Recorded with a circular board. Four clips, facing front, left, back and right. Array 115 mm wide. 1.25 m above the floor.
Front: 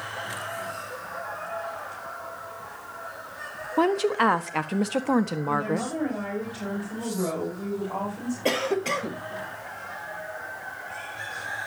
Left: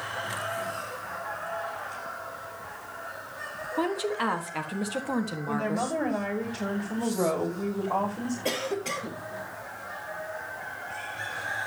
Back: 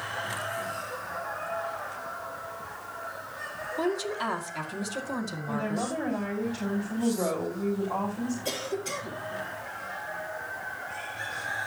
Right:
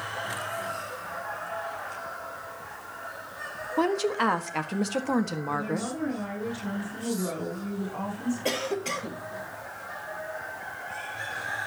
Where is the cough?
Straight ahead, 1.5 m.